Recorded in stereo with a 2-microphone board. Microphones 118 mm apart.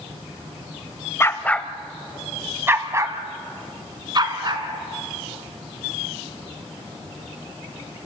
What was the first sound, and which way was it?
A dog barking, 25° left (ahead or behind).